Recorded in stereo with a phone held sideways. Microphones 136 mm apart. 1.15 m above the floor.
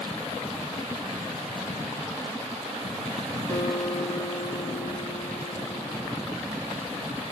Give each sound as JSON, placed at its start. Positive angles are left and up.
{"t": 3.5, "sound": "a guitar", "side_deg": 20, "distance_m": 5.0}